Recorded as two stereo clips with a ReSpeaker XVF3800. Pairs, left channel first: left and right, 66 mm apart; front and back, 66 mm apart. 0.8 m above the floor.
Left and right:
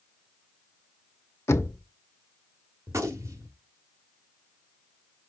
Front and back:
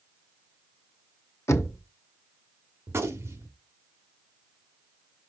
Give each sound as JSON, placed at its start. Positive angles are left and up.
{"t": 1.5, "sound": "knocking", "azimuth_deg": 45, "distance_m": 0.9}
{"t": 2.9, "sound": "a gunshot", "azimuth_deg": -130, "distance_m": 1.4}